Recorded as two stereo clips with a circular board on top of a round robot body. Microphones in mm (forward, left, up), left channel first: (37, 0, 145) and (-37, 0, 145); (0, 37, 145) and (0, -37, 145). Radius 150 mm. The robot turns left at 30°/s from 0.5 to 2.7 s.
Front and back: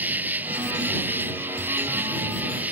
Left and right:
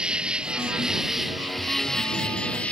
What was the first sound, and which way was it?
An insect, 150° right.